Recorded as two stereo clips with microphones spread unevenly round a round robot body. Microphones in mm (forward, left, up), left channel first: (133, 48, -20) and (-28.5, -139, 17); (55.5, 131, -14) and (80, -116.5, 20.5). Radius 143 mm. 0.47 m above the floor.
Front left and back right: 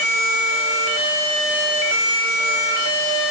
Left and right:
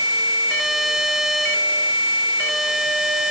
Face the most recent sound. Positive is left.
No sound to turn to.